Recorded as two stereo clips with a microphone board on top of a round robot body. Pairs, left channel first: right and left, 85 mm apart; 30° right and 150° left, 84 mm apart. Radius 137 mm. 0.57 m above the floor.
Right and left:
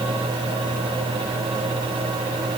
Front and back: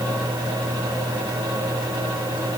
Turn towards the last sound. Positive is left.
No sound to turn to.